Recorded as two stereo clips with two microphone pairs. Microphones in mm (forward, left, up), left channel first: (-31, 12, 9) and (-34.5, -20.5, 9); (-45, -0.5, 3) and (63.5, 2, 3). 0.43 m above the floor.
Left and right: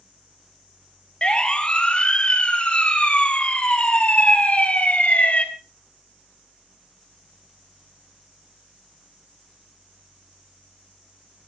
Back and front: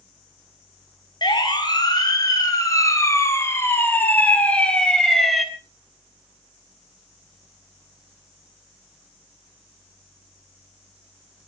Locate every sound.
1.2 s a siren: 140° left, 3 m; by 5.5 s 90° left, 2 m